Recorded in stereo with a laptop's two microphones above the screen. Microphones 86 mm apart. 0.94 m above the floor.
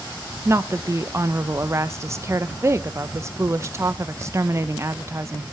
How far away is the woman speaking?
About 0.6 m.